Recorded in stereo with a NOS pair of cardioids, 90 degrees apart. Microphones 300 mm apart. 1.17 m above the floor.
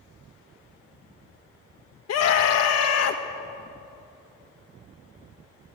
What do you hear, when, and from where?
2.1 s a scream: 60° left, 1.5 m